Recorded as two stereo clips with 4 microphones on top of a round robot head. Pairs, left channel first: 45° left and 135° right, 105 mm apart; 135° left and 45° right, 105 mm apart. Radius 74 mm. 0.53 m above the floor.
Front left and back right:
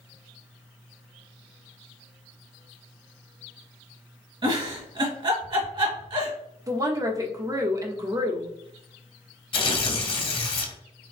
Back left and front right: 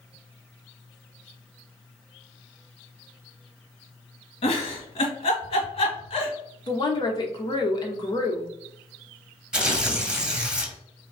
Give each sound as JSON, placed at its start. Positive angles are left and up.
{"t": 4.4, "sound": "a giggle", "azimuth_deg": 175, "distance_m": 1.6}
{"t": 6.7, "sound": "a woman speaking", "azimuth_deg": 175, "distance_m": 1.3}
{"t": 9.5, "sound": "tearing paper", "azimuth_deg": 35, "distance_m": 1.7}